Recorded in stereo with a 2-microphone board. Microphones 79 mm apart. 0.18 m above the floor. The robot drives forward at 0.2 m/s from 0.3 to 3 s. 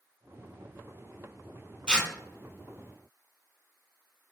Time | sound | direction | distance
1.9 | tearing paper | 15° left (ahead or behind) | 0.5 m